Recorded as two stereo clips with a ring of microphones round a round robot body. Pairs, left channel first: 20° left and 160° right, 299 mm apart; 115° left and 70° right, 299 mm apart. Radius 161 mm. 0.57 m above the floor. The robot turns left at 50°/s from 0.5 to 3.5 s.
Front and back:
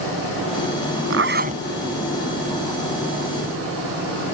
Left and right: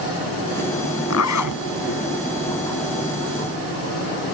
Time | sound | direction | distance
1.1 | a zipper | 155° left | ?